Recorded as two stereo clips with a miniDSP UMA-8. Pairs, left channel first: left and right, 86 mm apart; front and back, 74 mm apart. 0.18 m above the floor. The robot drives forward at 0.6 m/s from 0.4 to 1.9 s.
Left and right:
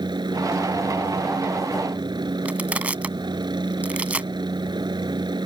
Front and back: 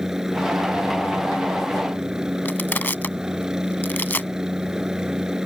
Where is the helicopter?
100° right.